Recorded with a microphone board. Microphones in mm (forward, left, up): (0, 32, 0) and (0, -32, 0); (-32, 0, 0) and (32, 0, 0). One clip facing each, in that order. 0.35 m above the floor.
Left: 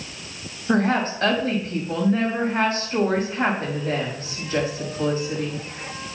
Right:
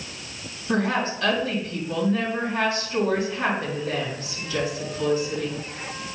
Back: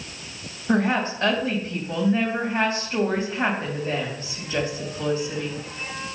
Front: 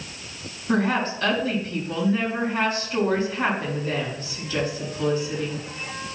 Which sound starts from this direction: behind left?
A woman speaking, at 0.7 s.